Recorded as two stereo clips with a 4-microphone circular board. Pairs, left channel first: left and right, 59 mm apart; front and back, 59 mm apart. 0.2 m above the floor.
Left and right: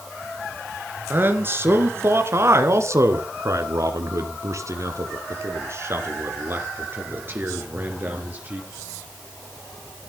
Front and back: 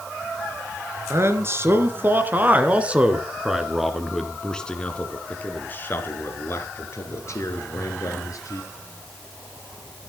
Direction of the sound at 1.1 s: 140° right.